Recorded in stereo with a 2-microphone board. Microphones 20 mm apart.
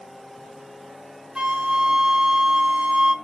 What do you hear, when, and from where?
1.4 s a flute: 55° right (ahead or behind), 0.7 m